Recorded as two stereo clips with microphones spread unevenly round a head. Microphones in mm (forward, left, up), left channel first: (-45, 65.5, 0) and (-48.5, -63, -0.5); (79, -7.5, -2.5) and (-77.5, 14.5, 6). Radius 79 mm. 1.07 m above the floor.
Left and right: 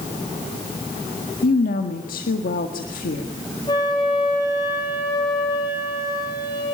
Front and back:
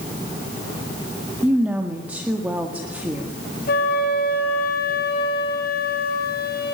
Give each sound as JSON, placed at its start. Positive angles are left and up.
{"t": 1.4, "sound": "a woman speaking", "azimuth_deg": 90, "distance_m": 1.8}
{"t": 3.7, "sound": "a flute", "azimuth_deg": 20, "distance_m": 5.0}